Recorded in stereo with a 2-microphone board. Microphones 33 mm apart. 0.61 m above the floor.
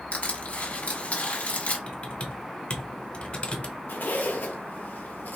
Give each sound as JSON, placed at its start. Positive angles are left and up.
{"t": 0.1, "sound": "crushing", "side_deg": 50, "distance_m": 1.6}
{"t": 1.9, "sound": "typing on a keyboard", "side_deg": 45, "distance_m": 1.0}
{"t": 3.9, "sound": "a zipper", "side_deg": 85, "distance_m": 1.0}